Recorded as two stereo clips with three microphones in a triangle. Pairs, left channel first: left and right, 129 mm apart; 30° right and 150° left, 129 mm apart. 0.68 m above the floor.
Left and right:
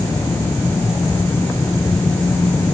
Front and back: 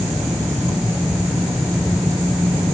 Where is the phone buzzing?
I don't hear a phone buzzing.